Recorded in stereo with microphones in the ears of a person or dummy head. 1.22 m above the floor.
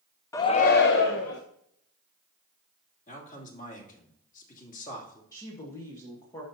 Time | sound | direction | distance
0.3 | a shout | 10° left (ahead or behind) | 0.5 m
3.1 | a man speaking | 45° left (ahead or behind) | 2.5 m
5.3 | a woman speaking | 15° left (ahead or behind) | 1.3 m